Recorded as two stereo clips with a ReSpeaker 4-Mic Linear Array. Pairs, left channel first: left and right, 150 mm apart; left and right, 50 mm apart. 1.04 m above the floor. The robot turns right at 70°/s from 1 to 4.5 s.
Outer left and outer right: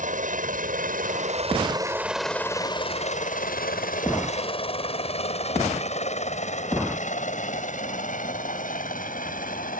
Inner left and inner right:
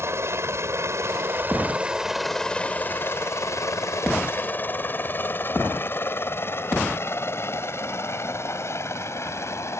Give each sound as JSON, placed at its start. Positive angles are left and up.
{"t": 0.0, "sound": "a helicopter", "side_deg": -60}